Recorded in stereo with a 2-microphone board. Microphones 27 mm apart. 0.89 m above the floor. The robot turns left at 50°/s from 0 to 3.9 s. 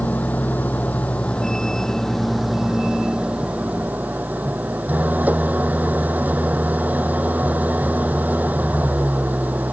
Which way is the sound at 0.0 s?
115° left.